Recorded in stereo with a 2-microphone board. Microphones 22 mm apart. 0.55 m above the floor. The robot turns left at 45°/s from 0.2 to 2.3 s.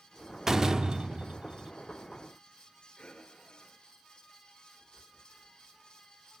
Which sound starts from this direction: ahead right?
A door slam, at 0.5 s.